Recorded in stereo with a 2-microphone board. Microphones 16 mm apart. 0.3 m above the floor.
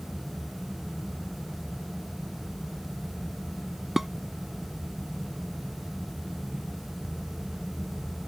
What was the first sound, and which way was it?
Dishes clattering, 15° right (ahead or behind).